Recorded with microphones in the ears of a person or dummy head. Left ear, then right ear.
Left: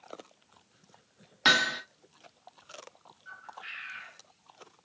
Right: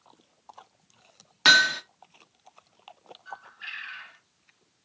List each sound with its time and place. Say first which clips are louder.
1.4 s hammering: right 6 dB; 15° right (ahead or behind), 0.6 m
3.2 s a bird: right 4 dB; 45° right (ahead or behind), 1.2 m